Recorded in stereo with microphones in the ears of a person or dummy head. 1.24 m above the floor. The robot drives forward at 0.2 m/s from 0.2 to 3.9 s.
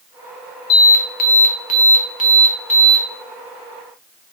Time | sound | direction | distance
0.7 | an alarm | 45° left (ahead or behind) | 0.6 m